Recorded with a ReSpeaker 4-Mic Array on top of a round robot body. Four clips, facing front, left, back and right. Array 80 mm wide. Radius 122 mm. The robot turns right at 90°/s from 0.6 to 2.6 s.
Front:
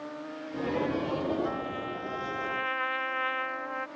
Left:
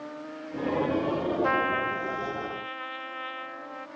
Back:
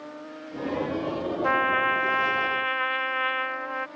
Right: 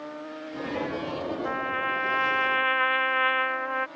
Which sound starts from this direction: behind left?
A trumpet, at 1.4 s.